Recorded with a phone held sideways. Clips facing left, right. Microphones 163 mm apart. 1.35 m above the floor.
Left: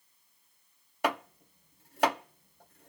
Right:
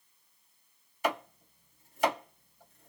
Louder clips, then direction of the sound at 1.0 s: Left 1 dB; 65° left (ahead or behind).